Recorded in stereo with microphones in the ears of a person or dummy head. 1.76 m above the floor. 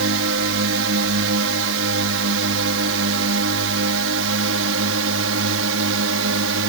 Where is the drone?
65° right (ahead or behind).